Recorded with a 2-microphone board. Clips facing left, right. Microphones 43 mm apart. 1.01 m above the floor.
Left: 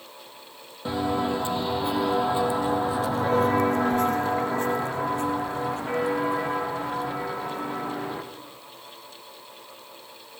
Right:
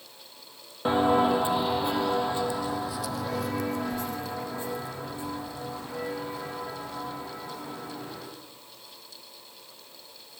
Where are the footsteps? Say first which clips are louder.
Right 4 dB; 30° right (ahead or behind), 1.4 m; by 8.2 s 70° left (ahead or behind), 5 m.